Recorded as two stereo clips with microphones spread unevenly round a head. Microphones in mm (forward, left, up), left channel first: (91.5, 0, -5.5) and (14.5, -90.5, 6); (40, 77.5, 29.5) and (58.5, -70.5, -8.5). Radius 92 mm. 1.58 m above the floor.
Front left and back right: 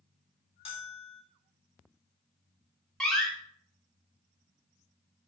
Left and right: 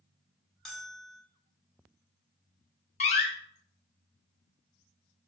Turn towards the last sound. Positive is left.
turn(degrees=140)